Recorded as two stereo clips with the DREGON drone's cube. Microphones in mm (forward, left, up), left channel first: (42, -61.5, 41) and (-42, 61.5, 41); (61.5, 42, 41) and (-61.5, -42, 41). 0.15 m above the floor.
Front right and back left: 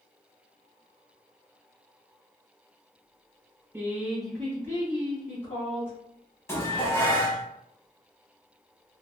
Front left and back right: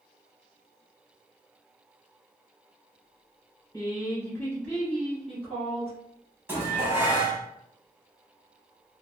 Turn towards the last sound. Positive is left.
turn(degrees=-95)